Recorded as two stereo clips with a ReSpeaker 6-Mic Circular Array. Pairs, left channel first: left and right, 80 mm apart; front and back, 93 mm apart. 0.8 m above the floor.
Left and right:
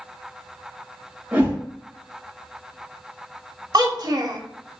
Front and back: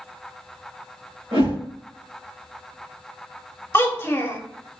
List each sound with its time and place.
1.3 s a whoosh: 160° right, 2.5 m
3.7 s a child speaking: 60° right, 0.9 m